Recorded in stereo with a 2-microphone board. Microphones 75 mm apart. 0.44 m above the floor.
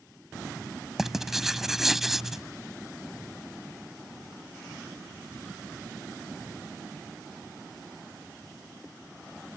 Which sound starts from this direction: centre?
Writing, at 1.0 s.